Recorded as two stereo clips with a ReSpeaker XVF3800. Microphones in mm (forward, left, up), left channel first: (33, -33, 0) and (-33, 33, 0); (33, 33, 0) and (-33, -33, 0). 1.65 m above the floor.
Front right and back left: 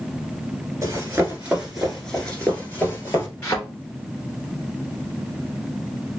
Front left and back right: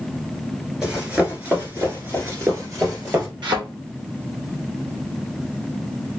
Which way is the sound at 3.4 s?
105° right.